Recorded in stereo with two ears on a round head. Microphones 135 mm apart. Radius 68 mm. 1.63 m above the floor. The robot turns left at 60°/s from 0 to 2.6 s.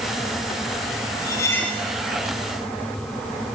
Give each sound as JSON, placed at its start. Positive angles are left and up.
{"t": 1.2, "sound": "cutlery clinking", "azimuth_deg": 35, "distance_m": 1.6}